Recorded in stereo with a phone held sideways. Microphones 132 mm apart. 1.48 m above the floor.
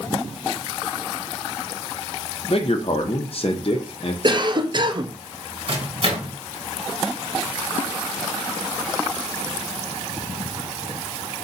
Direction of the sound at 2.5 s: 50° left (ahead or behind).